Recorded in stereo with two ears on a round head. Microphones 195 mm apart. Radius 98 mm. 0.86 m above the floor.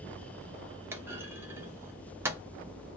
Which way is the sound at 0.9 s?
10° right (ahead or behind).